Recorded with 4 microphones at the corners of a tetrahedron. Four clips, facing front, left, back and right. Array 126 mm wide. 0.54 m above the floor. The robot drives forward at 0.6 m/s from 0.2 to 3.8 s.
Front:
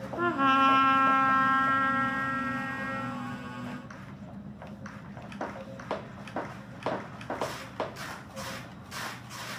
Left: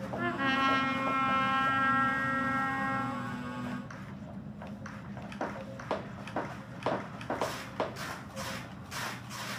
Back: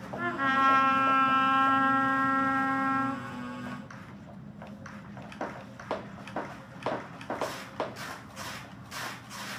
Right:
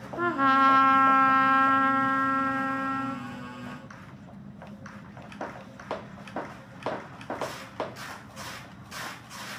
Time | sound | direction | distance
0.2 | a trumpet | 55° right | 0.9 m